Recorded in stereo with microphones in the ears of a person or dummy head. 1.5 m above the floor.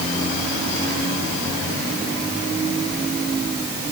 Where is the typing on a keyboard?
I don't hear typing on a keyboard.